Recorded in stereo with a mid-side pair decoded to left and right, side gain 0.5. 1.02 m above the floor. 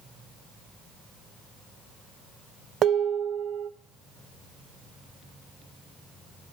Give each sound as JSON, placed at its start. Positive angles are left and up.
{"t": 2.8, "sound": "dishes clattering", "azimuth_deg": -55, "distance_m": 0.6}